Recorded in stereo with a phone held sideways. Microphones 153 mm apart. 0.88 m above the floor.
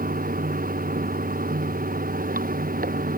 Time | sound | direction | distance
0.0 | running water | 70° right (ahead or behind) | ?